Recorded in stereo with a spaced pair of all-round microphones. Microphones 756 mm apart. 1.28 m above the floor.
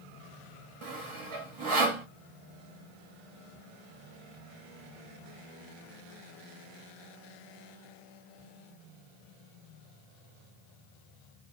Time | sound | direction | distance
0.8 | sawing | 40° right (ahead or behind) | 0.8 m